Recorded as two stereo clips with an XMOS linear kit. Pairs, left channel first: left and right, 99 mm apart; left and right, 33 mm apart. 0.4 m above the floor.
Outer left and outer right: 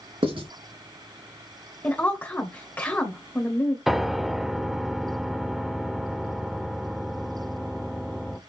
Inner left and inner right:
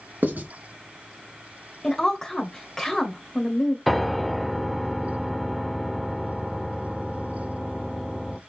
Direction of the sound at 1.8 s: 20° left (ahead or behind).